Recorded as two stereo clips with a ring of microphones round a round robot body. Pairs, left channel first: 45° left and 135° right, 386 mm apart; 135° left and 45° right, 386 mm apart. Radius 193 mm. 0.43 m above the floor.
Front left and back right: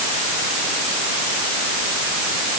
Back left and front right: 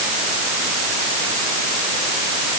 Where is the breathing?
No breathing in this recording.